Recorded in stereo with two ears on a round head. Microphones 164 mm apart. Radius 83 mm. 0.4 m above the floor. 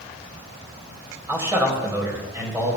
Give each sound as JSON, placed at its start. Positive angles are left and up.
{"t": 1.3, "sound": "a man speaking", "side_deg": -15, "distance_m": 2.0}